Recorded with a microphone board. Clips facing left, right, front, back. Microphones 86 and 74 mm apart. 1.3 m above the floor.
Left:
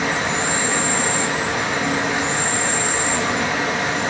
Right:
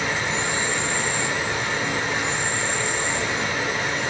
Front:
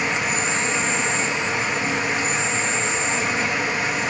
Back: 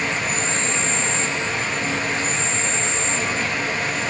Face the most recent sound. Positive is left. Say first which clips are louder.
# left 4 dB, front 1 dB
turn(degrees=80)